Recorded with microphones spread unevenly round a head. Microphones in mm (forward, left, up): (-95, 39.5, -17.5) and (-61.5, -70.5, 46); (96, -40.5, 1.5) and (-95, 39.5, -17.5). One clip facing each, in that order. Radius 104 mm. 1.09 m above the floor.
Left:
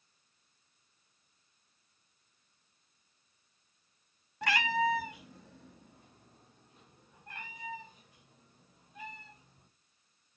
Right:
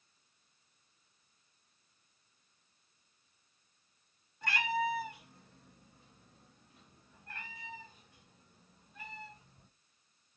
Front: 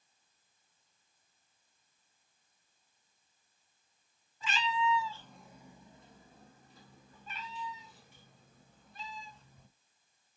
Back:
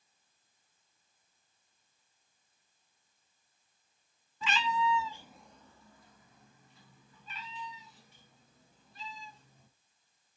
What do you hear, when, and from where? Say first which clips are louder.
4.4 s a cat meowing: left 3 dB, back 2 dB; 125° left, 0.9 m; by 9.7 s 15° left, 4.5 m